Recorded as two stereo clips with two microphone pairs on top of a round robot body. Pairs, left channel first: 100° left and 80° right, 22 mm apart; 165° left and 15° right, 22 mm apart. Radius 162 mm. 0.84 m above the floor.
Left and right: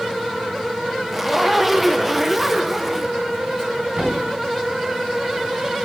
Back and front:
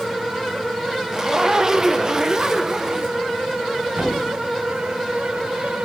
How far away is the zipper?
About 1.0 m.